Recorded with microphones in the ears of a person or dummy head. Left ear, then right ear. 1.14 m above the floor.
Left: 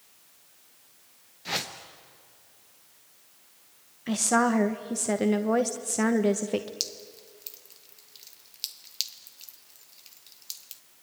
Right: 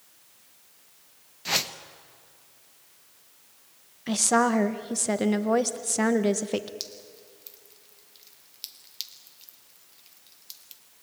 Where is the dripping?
15° left (ahead or behind), 1.0 m.